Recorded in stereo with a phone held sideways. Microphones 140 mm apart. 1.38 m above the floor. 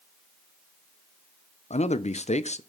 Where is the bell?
I don't hear a bell.